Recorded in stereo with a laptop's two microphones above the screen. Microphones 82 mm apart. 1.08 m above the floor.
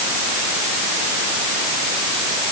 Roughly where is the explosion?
I don't hear an explosion.